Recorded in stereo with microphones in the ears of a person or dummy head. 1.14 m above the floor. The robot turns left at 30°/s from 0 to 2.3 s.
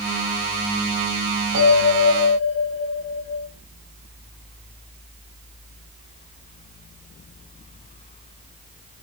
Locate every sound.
1.5 s a bell: 55° right (ahead or behind), 8.5 m; by 3.4 s 35° right (ahead or behind), 8.5 m